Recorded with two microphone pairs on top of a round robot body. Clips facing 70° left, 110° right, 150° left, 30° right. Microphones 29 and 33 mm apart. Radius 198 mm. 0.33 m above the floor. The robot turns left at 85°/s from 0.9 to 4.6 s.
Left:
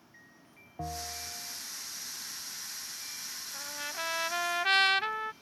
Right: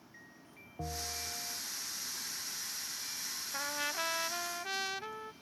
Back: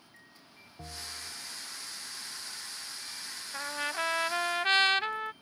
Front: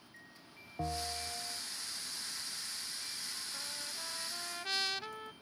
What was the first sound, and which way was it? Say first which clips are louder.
A bell: left 2 dB, front 5 dB; 15° left.